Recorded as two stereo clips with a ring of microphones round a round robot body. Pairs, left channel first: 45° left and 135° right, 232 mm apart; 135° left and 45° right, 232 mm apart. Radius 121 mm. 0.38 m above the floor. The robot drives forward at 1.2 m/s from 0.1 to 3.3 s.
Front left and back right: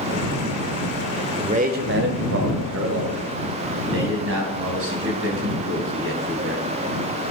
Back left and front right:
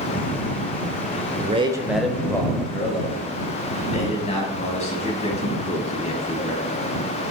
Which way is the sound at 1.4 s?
80° right.